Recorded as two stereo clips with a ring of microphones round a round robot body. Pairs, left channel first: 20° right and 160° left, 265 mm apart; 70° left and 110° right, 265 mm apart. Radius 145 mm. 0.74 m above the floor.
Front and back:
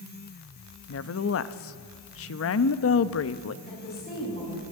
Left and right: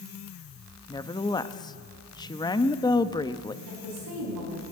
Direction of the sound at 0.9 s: 5° right.